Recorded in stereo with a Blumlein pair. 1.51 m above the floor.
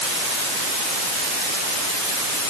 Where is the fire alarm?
No fire alarm in this recording.